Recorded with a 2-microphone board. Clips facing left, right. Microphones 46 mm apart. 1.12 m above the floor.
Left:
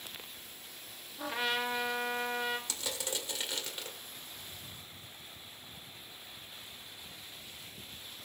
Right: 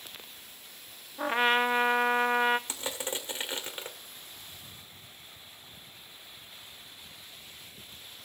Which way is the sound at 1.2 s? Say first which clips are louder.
Right 8 dB; 35° right (ahead or behind).